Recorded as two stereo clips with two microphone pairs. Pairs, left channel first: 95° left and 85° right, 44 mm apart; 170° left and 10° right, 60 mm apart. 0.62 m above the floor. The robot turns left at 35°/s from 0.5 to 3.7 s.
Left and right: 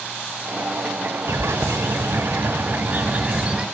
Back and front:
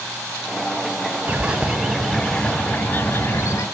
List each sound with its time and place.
1.3 s a bird: 70° right, 0.7 m; by 3.6 s 155° right, 0.7 m